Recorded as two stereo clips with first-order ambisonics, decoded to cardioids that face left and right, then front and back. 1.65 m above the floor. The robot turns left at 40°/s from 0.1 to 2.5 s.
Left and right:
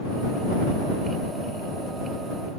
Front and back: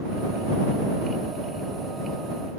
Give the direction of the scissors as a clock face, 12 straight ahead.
No scissors in this recording.